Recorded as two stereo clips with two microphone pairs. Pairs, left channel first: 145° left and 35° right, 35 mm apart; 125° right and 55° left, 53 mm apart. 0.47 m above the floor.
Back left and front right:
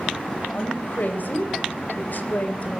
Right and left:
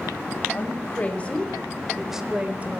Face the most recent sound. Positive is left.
turn(degrees=105)